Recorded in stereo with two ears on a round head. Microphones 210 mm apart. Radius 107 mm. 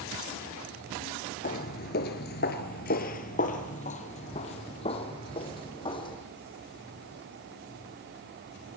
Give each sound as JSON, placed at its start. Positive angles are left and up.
{"t": 1.4, "sound": "footsteps", "side_deg": 35, "distance_m": 1.7}